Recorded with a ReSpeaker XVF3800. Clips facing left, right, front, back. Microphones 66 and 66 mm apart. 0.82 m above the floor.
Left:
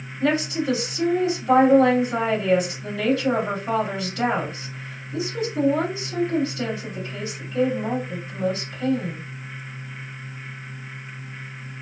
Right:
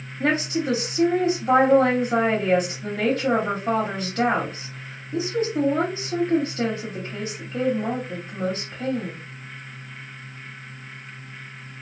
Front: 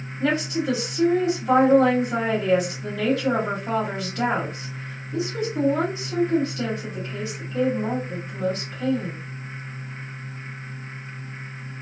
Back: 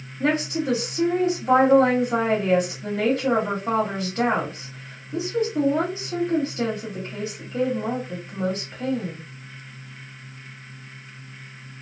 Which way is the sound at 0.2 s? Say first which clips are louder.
Left 1 dB, even; 125° right.